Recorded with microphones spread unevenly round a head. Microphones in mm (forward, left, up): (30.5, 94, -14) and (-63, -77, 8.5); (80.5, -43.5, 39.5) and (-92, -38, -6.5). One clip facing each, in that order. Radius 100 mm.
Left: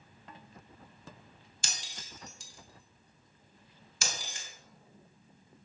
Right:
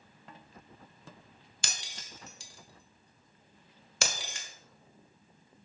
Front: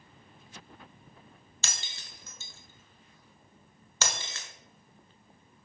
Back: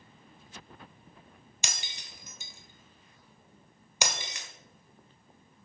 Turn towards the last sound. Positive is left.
turn(degrees=-100)